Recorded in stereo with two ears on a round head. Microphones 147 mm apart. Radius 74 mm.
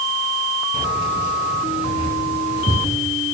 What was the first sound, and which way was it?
Keys jangling, 45° left (ahead or behind).